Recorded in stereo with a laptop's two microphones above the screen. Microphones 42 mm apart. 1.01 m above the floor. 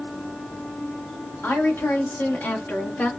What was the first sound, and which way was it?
A woman speaking, 75° left (ahead or behind).